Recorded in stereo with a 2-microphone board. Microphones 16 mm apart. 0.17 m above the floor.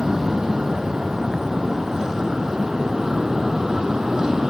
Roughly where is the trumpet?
I don't hear a trumpet.